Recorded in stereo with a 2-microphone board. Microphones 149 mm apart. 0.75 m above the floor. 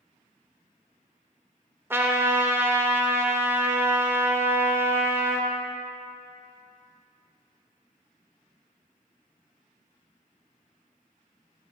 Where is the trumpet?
15° right (ahead or behind), 0.5 m.